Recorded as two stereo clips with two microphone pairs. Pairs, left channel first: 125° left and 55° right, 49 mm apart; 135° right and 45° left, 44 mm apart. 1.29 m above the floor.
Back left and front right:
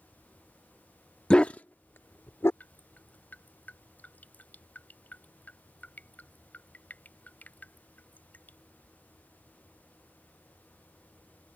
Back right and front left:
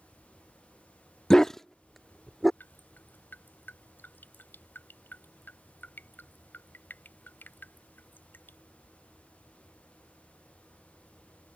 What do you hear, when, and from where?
1.3 s a dog barking: 175° left; by 2.5 s 135° left
2.6 s dripping: 175° right